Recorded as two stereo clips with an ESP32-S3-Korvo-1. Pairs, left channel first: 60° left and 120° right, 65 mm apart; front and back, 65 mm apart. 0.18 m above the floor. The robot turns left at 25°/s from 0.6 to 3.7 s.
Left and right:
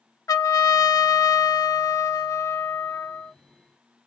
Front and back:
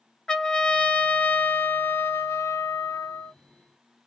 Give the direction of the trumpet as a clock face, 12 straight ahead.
9 o'clock.